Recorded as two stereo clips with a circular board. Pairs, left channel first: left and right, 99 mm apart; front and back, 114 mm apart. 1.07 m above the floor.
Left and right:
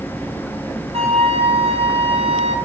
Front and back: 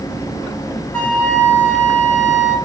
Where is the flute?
75° right, 5.5 m.